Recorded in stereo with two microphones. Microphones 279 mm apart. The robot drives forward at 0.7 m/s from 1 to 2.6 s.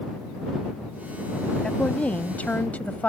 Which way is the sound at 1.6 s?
5° left (ahead or behind).